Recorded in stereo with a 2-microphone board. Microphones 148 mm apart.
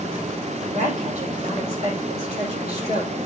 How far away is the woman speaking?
About 7.5 m.